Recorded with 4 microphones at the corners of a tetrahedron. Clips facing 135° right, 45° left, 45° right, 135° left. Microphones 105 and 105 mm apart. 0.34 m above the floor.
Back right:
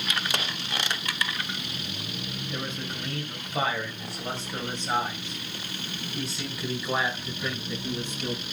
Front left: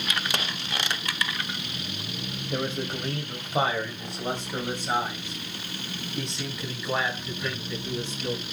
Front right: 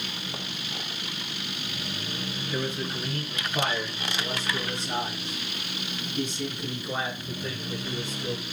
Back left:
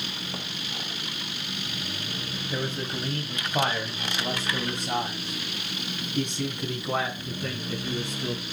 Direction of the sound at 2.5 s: 80° left.